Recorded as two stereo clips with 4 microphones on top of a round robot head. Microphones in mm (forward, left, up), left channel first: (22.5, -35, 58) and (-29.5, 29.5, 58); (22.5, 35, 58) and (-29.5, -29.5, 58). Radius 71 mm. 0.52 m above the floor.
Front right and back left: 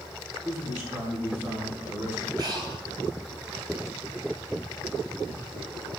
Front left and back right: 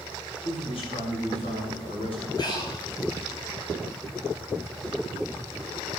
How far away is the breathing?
About 3.5 m.